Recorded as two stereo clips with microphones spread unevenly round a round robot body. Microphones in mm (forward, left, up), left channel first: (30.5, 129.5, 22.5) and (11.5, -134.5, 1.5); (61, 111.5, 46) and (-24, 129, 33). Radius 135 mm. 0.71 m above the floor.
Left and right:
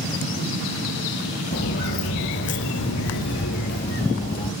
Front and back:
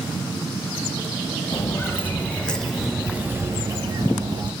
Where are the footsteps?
40° left, 1.4 m; by 4.5 s 150° left, 1.2 m.